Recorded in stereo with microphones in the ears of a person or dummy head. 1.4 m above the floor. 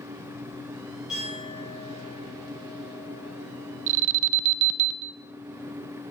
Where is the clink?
5° right (ahead or behind), 9.5 m.